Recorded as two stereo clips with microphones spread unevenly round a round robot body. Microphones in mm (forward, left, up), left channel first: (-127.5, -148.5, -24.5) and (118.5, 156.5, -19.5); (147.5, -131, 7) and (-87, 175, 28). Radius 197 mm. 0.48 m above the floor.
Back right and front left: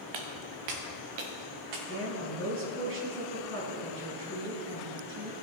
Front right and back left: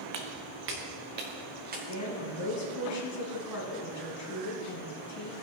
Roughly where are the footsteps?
Left.